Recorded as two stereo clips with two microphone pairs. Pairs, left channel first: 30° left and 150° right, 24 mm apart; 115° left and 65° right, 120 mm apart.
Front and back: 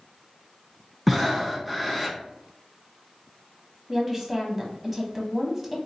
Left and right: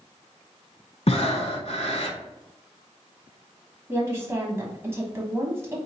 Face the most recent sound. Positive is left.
turn(degrees=-80)